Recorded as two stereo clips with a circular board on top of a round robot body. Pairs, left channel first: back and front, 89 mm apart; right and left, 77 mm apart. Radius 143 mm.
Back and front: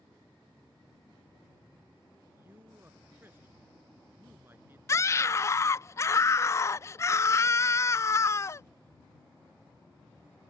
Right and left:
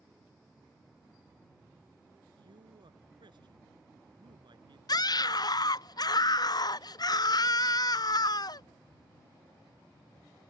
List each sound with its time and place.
2.4 s a man speaking: 65° left
4.9 s a scream: 125° right